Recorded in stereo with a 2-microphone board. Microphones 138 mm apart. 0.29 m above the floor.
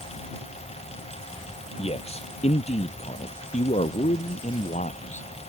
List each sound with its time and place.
1.8 s a man speaking: 45° left (ahead or behind); by 5.3 s 60° left (ahead or behind)